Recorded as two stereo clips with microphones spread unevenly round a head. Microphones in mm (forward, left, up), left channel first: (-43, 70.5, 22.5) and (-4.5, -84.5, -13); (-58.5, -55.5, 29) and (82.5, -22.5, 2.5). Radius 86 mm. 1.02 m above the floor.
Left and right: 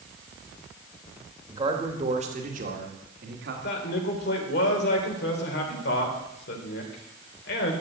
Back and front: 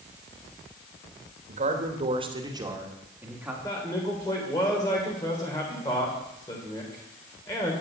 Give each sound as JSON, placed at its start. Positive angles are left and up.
{"t": 1.5, "sound": "a man speaking", "azimuth_deg": -10, "distance_m": 2.0}
{"t": 3.6, "sound": "a man speaking", "azimuth_deg": 120, "distance_m": 3.0}